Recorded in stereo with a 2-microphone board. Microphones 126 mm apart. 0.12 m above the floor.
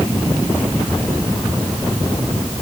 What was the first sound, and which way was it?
Only background noise.